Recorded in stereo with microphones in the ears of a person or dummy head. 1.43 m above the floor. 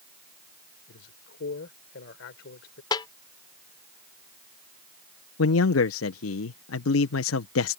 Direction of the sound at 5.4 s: 75° left (ahead or behind).